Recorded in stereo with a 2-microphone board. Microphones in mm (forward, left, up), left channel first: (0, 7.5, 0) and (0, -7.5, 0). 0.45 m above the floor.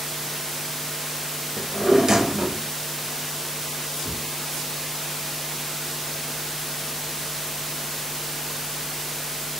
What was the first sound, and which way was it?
A drawer, 50° right (ahead or behind).